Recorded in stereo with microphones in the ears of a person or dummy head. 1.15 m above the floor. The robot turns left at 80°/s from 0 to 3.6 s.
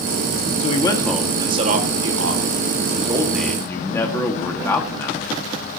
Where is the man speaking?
40° left, 1.9 m; by 5.4 s 160° left, 1.9 m.